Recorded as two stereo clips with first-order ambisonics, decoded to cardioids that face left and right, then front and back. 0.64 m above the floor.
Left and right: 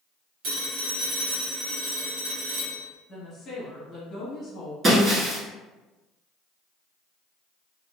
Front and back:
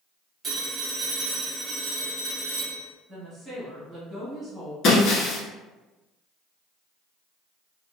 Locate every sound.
0.4 s a phone ringing: 110° right, 1.2 m
3.1 s a woman speaking: 125° left, 1.1 m
4.8 s breaking glass: 35° right, 0.8 m